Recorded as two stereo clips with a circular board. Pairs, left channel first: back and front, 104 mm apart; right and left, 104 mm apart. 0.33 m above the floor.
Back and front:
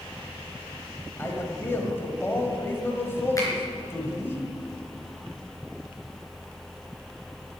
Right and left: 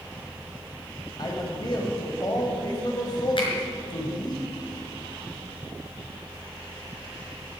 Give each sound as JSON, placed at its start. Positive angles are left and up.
{"t": 1.2, "sound": "a man speaking", "azimuth_deg": -120, "distance_m": 1.7}
{"t": 3.4, "sound": "a finger snap", "azimuth_deg": -125, "distance_m": 4.0}